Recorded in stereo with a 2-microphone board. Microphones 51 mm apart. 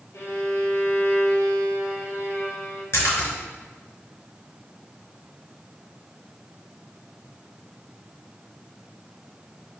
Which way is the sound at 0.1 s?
55° left (ahead or behind).